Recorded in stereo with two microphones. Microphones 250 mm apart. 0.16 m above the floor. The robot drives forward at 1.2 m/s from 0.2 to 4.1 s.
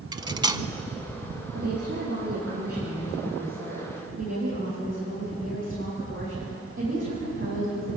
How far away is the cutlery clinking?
About 0.6 m.